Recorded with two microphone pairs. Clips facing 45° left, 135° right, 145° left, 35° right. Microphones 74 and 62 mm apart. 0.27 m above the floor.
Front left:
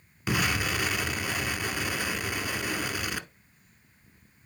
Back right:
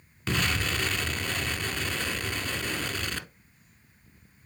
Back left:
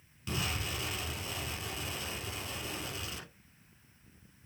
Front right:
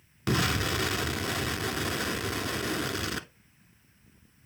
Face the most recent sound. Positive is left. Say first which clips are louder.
# front left 1 dB, front right 9 dB
turn(degrees=-35)